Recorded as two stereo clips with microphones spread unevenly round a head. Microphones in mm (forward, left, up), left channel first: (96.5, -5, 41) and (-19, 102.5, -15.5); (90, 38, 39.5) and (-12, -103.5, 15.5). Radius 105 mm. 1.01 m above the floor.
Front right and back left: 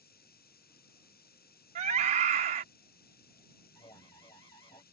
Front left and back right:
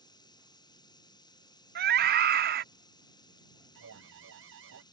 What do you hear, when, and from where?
0.0 s running water: 15° right
1.8 s a scream: 170° right
3.8 s an alarm: 115° right